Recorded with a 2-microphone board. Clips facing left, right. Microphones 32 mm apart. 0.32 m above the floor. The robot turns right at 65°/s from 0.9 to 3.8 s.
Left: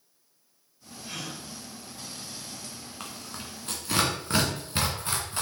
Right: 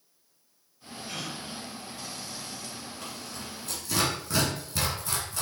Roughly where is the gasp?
Centre.